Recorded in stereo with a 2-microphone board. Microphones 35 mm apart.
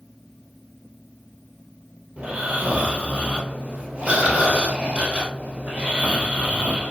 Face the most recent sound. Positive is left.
turn(degrees=-45)  # may be behind; listen again after turning